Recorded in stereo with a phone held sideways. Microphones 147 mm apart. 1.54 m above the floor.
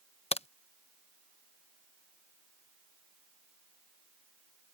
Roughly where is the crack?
Left.